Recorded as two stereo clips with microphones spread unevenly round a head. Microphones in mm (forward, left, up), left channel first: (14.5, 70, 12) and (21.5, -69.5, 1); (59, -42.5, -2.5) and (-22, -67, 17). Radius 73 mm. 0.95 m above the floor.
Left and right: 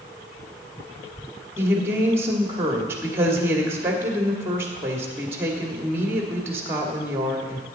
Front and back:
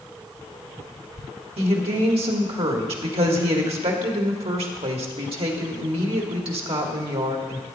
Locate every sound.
1.6 s a woman speaking: 165° right, 1.8 m